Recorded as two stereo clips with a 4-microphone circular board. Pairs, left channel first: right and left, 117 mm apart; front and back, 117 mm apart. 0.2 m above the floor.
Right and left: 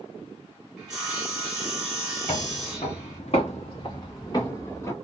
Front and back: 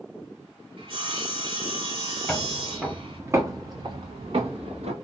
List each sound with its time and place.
0.8 s sawing: 170° left, 1.6 m
2.3 s footsteps: 80° right, 1.2 m; by 5.0 s 160° right, 1.4 m